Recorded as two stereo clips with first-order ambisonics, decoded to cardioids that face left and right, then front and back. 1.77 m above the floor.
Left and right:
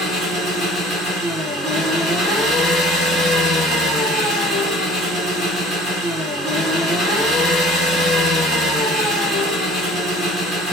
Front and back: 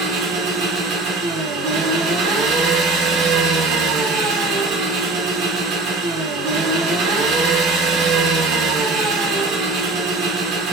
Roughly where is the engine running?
Behind right.